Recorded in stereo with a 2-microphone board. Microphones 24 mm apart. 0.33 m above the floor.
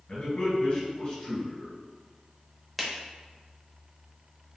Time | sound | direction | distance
0.1 | a man speaking | 45° left (ahead or behind) | 1.9 m
2.8 | a finger snap | centre (ahead or behind) | 0.7 m